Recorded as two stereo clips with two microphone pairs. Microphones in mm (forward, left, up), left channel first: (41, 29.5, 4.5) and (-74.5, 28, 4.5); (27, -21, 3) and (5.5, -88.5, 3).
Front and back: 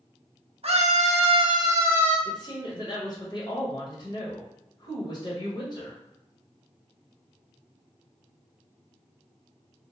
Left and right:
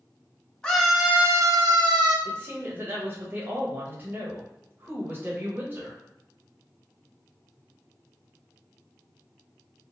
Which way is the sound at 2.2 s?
50° right.